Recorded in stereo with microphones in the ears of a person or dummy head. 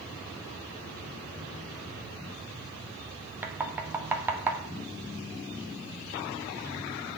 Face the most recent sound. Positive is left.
turn(degrees=-10)  # may be behind; listen again after turning